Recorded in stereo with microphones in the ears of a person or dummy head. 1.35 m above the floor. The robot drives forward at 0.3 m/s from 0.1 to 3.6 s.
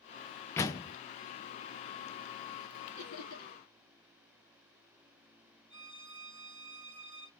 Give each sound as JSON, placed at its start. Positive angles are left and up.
{"t": 0.6, "sound": "a door slam", "side_deg": 15, "distance_m": 0.7}
{"t": 3.0, "sound": "laughter", "side_deg": 75, "distance_m": 2.5}
{"t": 5.7, "sound": "a violin", "side_deg": -20, "distance_m": 1.1}